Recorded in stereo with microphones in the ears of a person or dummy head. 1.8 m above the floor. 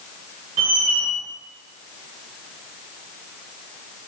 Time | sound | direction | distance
0.6 | a squeak | 60° right (ahead or behind) | 3.5 m